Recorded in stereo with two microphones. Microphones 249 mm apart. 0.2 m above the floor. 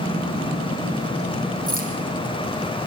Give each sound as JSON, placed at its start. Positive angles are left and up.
{"t": 1.7, "sound": "keys jangling", "side_deg": -35, "distance_m": 6.5}